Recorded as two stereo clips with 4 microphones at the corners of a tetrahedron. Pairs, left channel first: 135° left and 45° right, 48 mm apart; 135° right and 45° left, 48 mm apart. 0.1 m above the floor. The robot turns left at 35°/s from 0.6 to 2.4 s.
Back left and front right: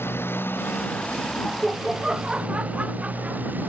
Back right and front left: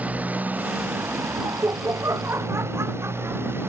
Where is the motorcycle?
100° left; by 3.7 s 5° left.